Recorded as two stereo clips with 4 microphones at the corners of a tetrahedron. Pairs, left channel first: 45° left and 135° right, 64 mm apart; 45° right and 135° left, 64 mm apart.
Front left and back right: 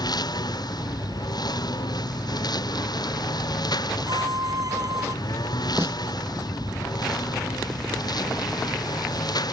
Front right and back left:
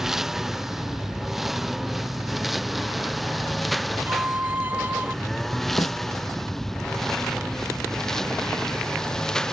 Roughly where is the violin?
Behind.